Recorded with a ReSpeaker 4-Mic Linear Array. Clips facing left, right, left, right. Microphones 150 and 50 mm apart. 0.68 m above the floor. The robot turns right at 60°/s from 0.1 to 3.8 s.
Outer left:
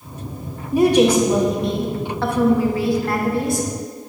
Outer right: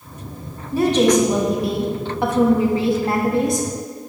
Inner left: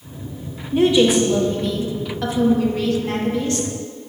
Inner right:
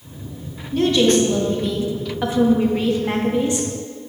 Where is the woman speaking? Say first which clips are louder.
Outer left 1 dB, inner left 1 dB; 15° left (ahead or behind), 0.8 m; by 3.7 s 15° right (ahead or behind), 0.8 m.